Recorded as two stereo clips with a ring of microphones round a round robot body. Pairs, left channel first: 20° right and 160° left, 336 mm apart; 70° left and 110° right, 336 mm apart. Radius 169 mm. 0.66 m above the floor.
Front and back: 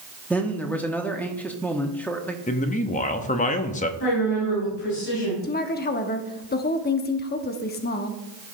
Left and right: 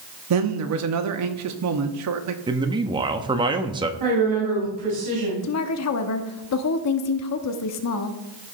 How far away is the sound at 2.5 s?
About 0.9 m.